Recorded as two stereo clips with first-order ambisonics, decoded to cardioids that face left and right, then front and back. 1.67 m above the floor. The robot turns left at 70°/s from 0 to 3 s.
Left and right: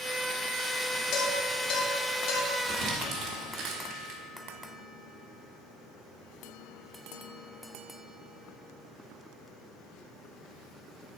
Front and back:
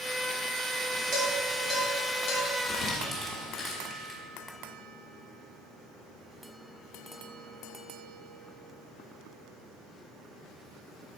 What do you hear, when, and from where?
1.1 s dishes clattering: 120° left, 2.5 m; by 2.5 s 25° left, 2.5 m
2.7 s crumpling: 45° right, 1.6 m; by 4.2 s 70° right, 1.6 m